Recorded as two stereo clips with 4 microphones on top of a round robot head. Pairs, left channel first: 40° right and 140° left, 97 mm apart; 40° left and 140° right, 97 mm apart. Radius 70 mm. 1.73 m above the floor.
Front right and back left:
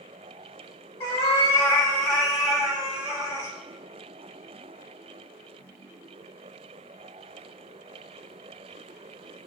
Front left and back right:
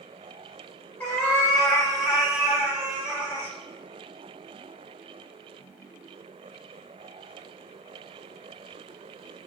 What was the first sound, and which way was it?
A cat meowing, 35° right.